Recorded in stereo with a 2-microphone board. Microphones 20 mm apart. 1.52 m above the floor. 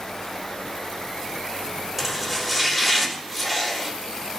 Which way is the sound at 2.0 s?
15° right (ahead or behind).